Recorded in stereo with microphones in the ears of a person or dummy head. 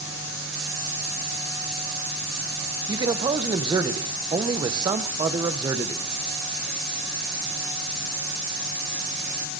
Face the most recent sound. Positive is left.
turn(degrees=-20)  # may be behind; listen again after turning